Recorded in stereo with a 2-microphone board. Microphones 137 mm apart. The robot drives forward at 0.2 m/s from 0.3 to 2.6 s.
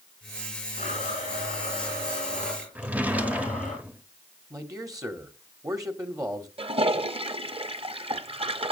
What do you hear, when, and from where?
0.8 s a blender: 70° left (ahead or behind), 6.5 m; by 3.8 s 65° left (ahead or behind), 6.5 m
2.8 s a drawer: 10° right (ahead or behind), 0.7 m
4.5 s a man speaking: 25° right (ahead or behind), 0.9 m
6.6 s a toilet flushing: 45° right (ahead or behind), 0.5 m